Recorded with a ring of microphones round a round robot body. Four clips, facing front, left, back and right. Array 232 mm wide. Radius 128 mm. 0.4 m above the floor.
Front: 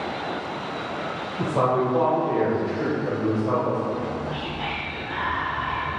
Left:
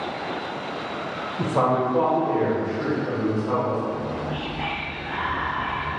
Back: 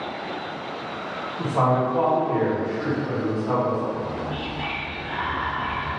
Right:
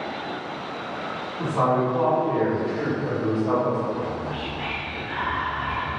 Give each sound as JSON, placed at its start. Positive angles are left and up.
{"t": 1.4, "sound": "a man speaking", "azimuth_deg": 70, "distance_m": 1.8}
{"t": 3.9, "sound": "whispering", "azimuth_deg": 120, "distance_m": 1.0}